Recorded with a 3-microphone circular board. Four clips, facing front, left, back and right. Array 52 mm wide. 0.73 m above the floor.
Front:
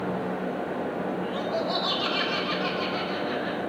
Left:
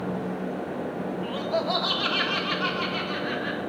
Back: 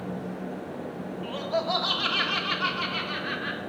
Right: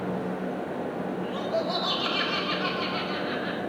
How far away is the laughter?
About 1.7 m.